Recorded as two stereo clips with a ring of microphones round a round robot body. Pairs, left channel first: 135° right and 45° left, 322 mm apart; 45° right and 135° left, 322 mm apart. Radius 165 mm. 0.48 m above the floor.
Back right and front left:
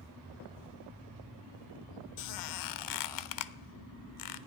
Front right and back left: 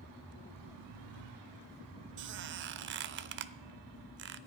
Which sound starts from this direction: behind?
A squeak, at 2.2 s.